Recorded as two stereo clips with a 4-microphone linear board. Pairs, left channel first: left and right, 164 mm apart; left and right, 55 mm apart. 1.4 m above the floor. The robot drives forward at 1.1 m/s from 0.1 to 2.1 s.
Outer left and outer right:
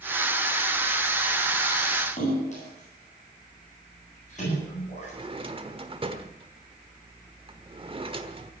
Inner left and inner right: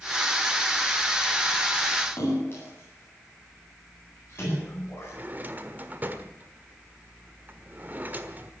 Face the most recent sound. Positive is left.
turn(degrees=-35)  # may be behind; listen again after turning